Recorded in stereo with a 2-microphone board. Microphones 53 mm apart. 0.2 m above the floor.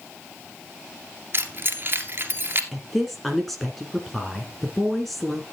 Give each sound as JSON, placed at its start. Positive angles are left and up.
{"t": 1.3, "sound": "keys jangling", "side_deg": -40, "distance_m": 2.0}
{"t": 2.7, "sound": "a woman speaking", "side_deg": 0, "distance_m": 2.0}